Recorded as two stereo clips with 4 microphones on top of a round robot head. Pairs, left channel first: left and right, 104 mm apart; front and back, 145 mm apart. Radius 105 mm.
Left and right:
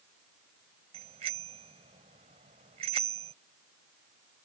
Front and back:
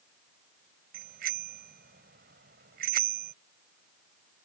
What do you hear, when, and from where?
0.9 s a bicycle bell: 140° right